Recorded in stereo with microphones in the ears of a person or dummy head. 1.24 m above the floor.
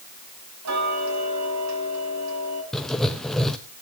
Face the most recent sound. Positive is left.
turn(degrees=5)  # may be behind; listen again after turning